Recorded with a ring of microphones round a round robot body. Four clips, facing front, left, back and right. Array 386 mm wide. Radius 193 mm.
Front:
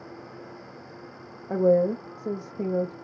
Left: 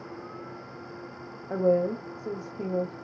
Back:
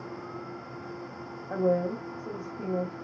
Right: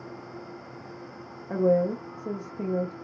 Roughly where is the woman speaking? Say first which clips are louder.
Right 1 dB, front 6 dB; ahead right.